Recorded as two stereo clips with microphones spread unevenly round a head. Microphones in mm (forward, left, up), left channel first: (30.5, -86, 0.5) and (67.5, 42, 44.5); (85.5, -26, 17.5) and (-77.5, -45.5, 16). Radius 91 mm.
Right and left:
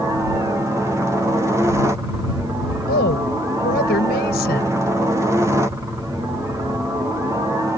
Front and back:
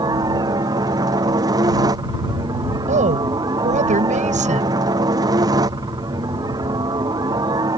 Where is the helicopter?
160° left.